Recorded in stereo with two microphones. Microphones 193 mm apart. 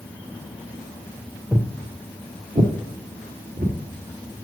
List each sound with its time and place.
1.5 s footsteps: 10° right (ahead or behind), 0.8 m; by 3.8 s 50° right (ahead or behind), 1.9 m